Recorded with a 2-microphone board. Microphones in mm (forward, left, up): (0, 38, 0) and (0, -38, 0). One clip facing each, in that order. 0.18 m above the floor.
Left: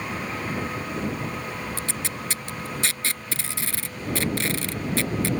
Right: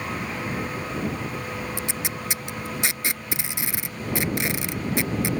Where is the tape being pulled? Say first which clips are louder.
Right 1 dB; 15° right (ahead or behind).